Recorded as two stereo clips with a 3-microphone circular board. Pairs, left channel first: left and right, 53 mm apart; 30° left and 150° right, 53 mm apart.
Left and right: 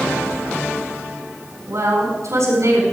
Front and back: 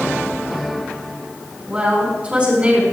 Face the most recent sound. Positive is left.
turn(degrees=-90)